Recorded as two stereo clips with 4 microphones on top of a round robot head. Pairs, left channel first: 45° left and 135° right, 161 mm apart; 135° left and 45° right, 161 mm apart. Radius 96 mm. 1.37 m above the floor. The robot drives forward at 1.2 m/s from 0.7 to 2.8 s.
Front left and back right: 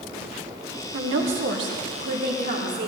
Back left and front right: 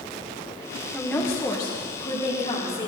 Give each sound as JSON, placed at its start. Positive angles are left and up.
{"t": 0.9, "sound": "a woman speaking", "azimuth_deg": -135, "distance_m": 1.1}